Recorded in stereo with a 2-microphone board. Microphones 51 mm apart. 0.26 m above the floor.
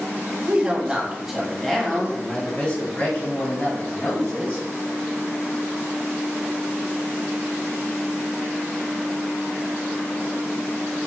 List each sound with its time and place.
0.5 s a woman speaking: 25° right (ahead or behind), 1.1 m; by 4.6 s 55° left (ahead or behind), 2 m